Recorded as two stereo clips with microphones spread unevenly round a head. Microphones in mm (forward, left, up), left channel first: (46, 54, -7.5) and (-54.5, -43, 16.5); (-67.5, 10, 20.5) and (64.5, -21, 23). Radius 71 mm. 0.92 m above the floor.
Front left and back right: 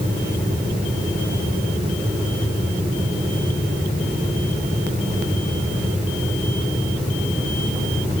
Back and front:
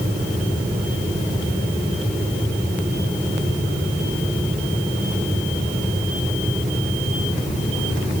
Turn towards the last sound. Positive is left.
No sound to turn to.